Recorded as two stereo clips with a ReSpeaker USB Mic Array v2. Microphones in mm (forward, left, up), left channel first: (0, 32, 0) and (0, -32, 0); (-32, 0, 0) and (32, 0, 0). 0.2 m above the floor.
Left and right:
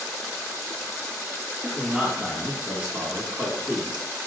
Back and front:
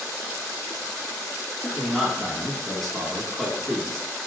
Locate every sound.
1.6 s a man speaking: 90° right, 1.3 m